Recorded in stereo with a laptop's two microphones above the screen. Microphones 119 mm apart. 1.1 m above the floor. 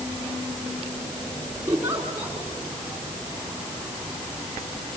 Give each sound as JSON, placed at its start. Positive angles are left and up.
{"t": 1.7, "sound": "a giggle", "side_deg": -20, "distance_m": 4.0}